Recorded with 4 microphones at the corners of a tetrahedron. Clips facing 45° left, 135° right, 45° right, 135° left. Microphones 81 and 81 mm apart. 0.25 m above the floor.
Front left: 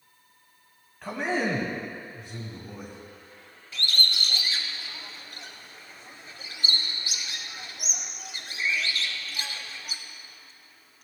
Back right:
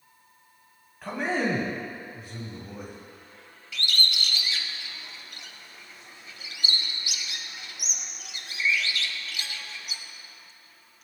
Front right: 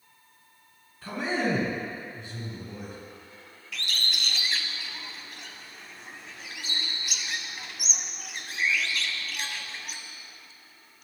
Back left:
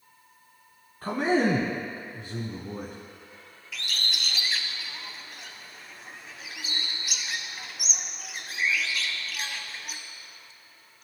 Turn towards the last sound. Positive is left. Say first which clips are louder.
# even, even
turn(degrees=50)